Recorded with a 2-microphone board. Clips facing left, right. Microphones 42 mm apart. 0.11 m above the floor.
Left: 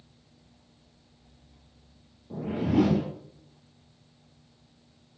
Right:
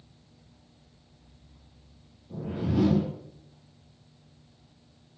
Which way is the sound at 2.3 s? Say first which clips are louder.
Left 4 dB; 60° left (ahead or behind).